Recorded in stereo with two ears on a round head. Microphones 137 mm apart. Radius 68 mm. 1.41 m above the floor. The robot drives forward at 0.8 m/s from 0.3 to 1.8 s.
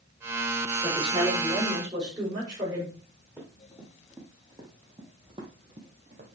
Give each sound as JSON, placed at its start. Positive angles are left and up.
{"t": 0.8, "sound": "a woman speaking", "side_deg": -30, "distance_m": 4.5}
{"t": 3.4, "sound": "running footsteps", "side_deg": -10, "distance_m": 3.5}